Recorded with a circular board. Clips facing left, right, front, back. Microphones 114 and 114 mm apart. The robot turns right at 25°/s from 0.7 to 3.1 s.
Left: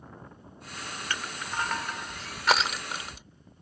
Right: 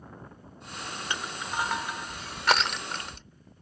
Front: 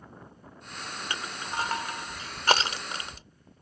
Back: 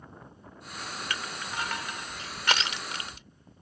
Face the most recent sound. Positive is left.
turn(degrees=15)